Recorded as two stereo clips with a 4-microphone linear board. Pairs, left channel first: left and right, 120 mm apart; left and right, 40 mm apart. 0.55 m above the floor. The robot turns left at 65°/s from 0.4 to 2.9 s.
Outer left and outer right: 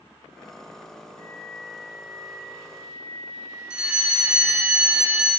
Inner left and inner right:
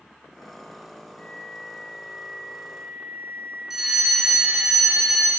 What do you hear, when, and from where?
1.2 s a flute: 25° left, 0.5 m; by 4.7 s 85° right, 0.5 m
3.7 s a fire alarm: 5° right (ahead or behind), 1.7 m